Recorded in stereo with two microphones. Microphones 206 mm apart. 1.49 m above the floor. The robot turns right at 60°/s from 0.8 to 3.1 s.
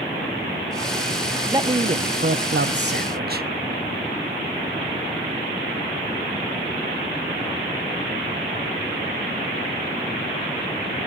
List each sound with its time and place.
1.5 s a man speaking: 160° right, 0.6 m; by 3.5 s 65° right, 0.6 m